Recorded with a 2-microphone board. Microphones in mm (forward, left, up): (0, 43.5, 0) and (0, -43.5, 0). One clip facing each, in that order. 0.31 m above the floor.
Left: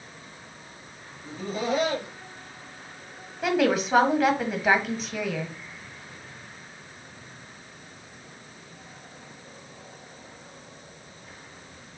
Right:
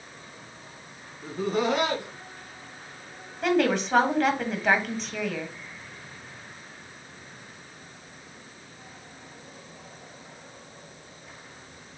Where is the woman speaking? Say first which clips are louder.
Even; 5° left (ahead or behind), 1.8 m.